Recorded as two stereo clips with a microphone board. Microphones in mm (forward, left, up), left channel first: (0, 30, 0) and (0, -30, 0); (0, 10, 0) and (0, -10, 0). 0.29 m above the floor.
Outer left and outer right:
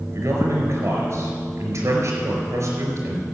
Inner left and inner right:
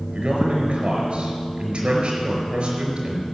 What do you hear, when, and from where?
0.1 s a man speaking: 60° right (ahead or behind), 4.5 m